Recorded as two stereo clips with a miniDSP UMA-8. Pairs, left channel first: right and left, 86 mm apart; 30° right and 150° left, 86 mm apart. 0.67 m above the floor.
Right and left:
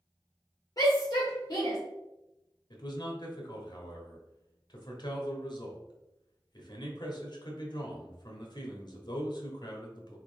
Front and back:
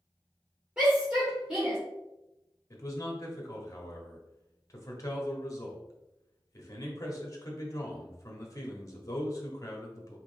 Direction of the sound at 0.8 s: 130° right.